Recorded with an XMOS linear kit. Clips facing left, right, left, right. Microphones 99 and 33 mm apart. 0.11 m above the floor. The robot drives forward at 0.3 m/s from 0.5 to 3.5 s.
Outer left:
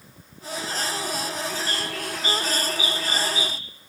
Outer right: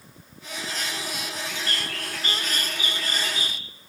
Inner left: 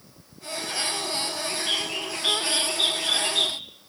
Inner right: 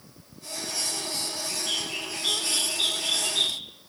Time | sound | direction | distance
1.5 | a bird | 20° left (ahead or behind) | 1.9 m